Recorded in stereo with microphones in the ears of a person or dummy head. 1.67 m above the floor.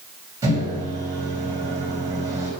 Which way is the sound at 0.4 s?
15° right (ahead or behind).